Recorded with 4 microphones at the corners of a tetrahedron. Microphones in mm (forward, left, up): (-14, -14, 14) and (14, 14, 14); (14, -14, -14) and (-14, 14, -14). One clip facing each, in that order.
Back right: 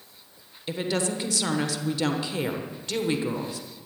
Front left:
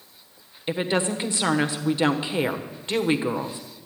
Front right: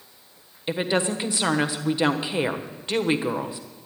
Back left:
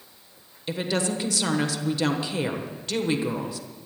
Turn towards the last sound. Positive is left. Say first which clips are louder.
# front left 3 dB, front right 3 dB
turn(degrees=5)